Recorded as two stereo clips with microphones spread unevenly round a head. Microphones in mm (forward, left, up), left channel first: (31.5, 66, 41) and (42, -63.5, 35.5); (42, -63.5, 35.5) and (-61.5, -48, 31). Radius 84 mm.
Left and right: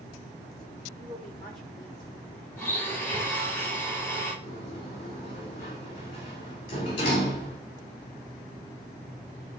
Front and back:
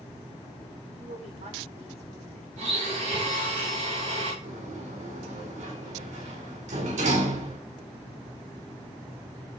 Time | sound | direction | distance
1.0 | a woman speaking | straight behind | 5 m
2.6 | a blender | 170° left | 6 m
4.4 | a sliding door | 155° left | 5 m